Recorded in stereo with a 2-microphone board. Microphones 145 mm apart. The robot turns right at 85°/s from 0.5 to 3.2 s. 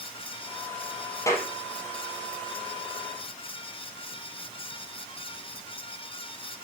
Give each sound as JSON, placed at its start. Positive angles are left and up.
{"t": 1.3, "sound": "a clap", "side_deg": 25, "distance_m": 4.0}